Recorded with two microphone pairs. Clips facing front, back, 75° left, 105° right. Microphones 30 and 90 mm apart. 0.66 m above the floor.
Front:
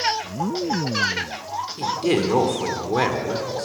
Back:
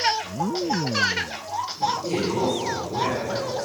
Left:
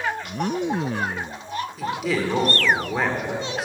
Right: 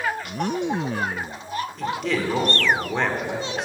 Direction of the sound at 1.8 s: 10° right.